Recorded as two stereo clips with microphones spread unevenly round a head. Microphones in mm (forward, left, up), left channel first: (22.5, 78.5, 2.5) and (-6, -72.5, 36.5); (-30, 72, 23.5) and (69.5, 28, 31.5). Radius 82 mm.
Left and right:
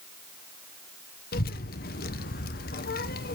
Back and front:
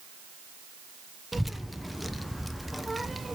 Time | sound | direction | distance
1.3 | a child speaking | 60° left | 0.7 m